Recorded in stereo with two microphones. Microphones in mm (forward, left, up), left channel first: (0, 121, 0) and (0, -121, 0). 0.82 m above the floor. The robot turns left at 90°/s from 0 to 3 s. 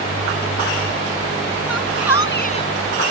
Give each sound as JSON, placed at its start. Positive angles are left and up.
{"t": 1.7, "sound": "a shout", "azimuth_deg": 105}